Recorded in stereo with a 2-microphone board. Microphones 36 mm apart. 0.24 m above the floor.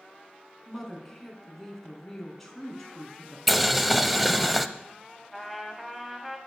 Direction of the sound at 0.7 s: 5° left (ahead or behind).